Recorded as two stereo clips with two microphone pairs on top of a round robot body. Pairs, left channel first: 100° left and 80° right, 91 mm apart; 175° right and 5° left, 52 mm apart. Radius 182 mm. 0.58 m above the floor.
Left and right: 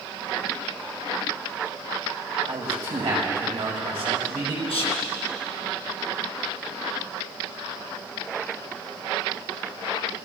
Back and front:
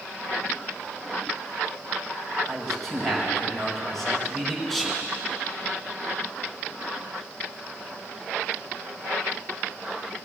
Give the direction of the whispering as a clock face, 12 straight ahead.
9 o'clock.